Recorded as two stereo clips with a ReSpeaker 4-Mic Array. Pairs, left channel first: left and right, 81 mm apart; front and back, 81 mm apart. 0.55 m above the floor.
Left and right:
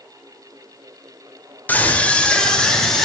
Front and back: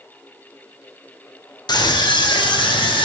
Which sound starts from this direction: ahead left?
A scream, at 1.7 s.